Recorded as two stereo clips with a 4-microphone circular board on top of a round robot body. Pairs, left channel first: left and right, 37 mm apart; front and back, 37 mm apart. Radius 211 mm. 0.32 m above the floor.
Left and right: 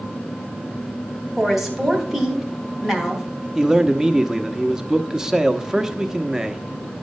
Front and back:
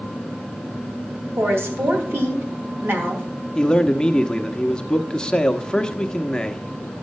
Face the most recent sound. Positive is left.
turn(degrees=-35)